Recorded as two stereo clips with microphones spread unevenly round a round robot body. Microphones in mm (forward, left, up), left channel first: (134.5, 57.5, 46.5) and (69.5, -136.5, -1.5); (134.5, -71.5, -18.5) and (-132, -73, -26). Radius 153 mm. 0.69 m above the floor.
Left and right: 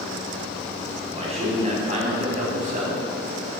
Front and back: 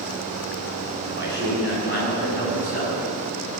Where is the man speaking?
50° right, 6.5 m; by 3.0 s 60° right, 6 m.